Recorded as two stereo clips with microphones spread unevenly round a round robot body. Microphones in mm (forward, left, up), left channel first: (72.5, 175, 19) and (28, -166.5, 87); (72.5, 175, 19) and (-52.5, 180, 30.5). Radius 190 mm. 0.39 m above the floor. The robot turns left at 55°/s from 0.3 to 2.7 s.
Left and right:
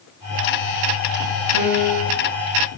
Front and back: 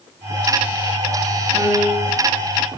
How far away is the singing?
I don't hear singing.